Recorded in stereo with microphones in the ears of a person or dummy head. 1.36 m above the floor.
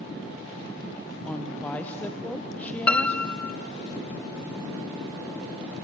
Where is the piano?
10° left (ahead or behind), 0.5 m.